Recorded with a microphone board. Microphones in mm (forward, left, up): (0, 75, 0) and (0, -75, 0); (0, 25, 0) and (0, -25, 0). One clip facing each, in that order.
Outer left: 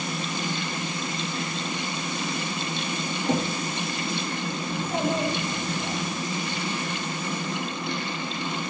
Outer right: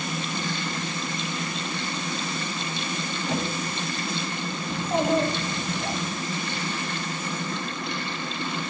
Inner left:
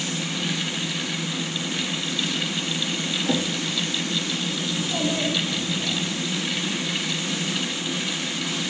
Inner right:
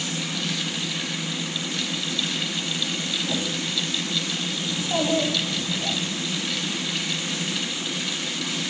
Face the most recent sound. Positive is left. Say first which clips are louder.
# outer right 4 dB, inner right 4 dB
turn(degrees=-45)  # may be behind; listen again after turning